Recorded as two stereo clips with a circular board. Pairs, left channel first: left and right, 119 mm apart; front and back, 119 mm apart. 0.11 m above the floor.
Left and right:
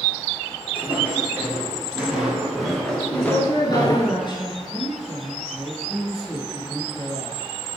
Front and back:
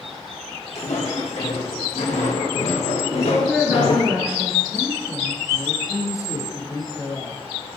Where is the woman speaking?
100° left, 1.8 m.